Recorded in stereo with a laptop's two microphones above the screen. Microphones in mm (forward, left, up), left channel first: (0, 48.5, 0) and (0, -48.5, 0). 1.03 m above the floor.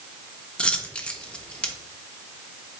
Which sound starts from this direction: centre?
A dropped coin, at 0.6 s.